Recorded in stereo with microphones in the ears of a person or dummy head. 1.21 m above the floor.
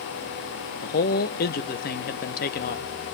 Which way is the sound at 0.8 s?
45° left (ahead or behind).